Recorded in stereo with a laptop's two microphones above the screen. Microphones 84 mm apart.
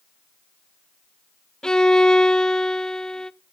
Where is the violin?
10° left (ahead or behind), 0.5 m.